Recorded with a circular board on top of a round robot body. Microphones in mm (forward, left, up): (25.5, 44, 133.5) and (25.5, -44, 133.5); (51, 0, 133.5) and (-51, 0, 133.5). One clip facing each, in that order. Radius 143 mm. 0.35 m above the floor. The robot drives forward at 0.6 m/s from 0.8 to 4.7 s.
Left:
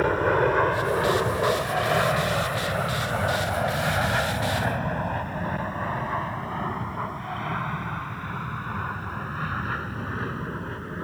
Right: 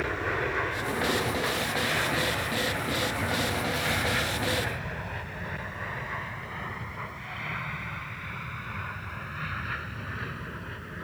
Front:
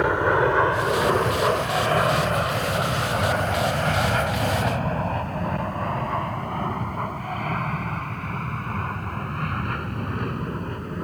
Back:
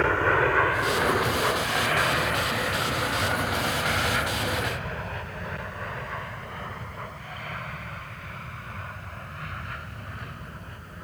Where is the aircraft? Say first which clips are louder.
Left 9 dB, front 3 dB; 70° left; by 11.0 s 35° left.